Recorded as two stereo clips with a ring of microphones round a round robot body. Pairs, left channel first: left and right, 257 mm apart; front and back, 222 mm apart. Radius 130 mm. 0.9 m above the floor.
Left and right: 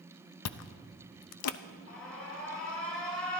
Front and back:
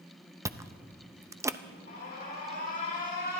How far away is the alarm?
About 4.5 m.